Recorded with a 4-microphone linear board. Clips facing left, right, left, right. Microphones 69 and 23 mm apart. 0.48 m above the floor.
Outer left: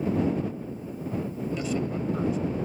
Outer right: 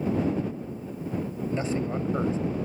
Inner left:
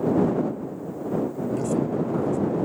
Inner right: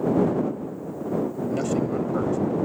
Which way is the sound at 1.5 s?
35° right (ahead or behind).